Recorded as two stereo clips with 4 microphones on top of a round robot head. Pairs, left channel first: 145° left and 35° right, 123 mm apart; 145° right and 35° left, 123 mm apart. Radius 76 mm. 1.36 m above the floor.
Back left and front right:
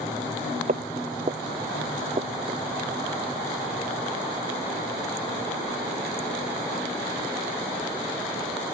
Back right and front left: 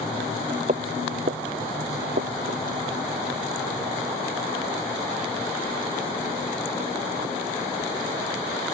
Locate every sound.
0.7 s footsteps: 5° right; by 2.6 s 20° left